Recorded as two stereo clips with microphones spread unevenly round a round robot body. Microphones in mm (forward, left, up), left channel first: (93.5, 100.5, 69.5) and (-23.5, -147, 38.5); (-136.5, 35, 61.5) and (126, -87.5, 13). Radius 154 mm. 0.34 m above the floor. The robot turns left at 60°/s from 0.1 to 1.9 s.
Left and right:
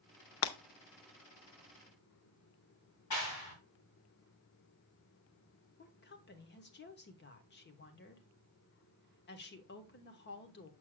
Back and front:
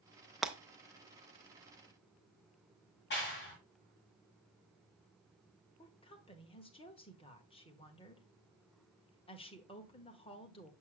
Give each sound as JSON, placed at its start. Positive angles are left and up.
{"t": 0.4, "sound": "breaking glass", "azimuth_deg": 55, "distance_m": 0.6}
{"t": 3.1, "sound": "a clap", "azimuth_deg": 95, "distance_m": 3.0}
{"t": 5.8, "sound": "a woman speaking", "azimuth_deg": 80, "distance_m": 1.1}